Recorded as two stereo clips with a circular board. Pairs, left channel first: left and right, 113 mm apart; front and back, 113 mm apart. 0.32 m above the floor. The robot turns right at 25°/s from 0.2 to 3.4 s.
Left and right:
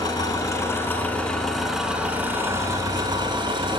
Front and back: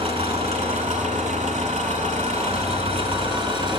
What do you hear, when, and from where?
0.0 s an engine running: 145° left, 0.9 m; by 3.8 s 135° right, 0.9 m